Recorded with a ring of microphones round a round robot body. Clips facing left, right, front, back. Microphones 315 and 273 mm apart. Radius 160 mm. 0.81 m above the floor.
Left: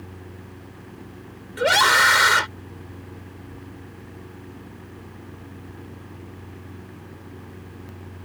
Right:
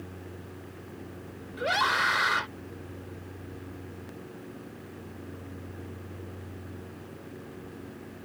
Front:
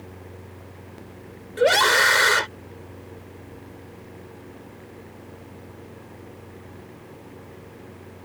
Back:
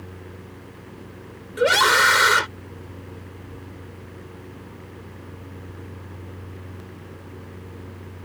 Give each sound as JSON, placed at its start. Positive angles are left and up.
{"t": 1.6, "sound": "a scream", "azimuth_deg": 105}